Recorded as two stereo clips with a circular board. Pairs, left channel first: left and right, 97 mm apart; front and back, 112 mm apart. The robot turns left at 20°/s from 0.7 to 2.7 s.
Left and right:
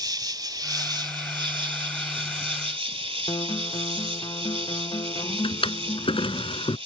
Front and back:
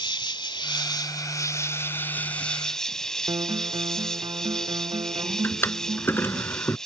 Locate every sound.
0.0 s an insect: 45° right; by 6.9 s 85° right
3.3 s a guitar: 130° left
5.4 s a drawer: 70° left